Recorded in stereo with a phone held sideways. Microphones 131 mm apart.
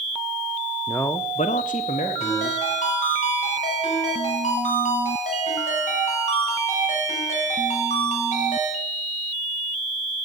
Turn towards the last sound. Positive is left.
turn(degrees=80)